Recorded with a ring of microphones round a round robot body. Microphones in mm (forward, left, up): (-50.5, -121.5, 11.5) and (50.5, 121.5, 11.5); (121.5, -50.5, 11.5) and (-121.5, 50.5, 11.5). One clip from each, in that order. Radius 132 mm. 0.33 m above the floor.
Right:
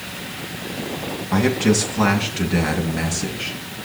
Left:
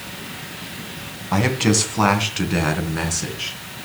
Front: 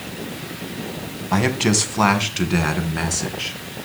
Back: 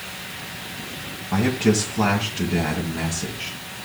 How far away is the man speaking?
About 2 m.